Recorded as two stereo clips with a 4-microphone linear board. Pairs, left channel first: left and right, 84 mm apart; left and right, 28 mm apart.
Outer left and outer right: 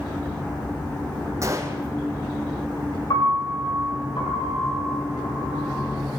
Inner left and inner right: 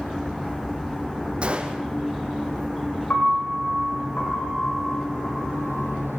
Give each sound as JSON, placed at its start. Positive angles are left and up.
{"t": 1.4, "sound": "a gunshot", "side_deg": -40, "distance_m": 4.0}
{"t": 3.1, "sound": "a piano", "side_deg": 60, "distance_m": 9.5}